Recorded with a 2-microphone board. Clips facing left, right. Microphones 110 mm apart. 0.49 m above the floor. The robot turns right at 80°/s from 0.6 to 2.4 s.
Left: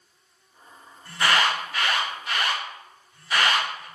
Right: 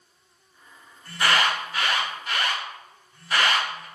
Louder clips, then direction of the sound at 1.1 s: Even; centre (ahead or behind).